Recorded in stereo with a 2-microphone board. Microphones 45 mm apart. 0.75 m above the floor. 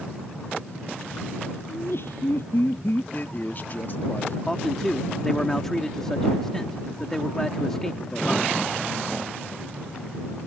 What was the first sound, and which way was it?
Laughter, 60° left (ahead or behind).